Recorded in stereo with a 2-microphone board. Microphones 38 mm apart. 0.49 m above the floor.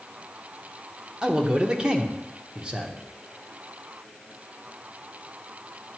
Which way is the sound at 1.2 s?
25° right (ahead or behind).